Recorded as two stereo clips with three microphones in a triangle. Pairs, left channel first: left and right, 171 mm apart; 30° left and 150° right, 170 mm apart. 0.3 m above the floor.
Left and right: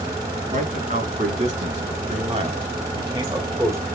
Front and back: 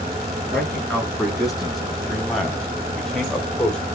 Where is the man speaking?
60° right, 2.5 m; by 3.8 s 45° right, 1.2 m.